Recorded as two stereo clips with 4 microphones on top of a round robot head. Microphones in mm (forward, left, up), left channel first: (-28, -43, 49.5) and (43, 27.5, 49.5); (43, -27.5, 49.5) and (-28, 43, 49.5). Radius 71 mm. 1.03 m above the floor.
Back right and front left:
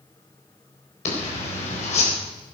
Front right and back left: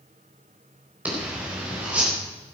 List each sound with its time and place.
1.1 s a zipper: 150° right, 4 m